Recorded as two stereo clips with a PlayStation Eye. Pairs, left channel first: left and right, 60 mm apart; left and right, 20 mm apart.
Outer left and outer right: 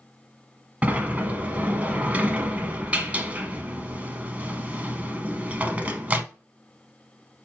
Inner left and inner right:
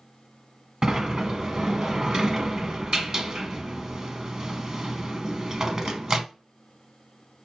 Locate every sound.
0.8 s a sliding door: 25° right (ahead or behind), 0.7 m